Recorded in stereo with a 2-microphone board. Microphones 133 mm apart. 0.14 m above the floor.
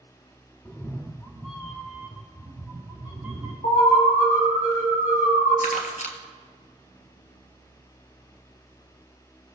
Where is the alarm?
70° left (ahead or behind), 4 m.